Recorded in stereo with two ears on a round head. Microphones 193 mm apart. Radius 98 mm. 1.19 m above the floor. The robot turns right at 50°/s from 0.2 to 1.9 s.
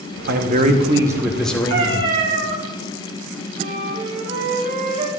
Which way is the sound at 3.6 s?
35° right (ahead or behind).